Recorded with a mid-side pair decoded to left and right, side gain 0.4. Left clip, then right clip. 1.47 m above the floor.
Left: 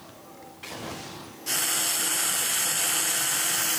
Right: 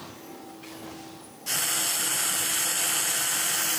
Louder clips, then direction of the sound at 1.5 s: Left 1 dB; 5° left.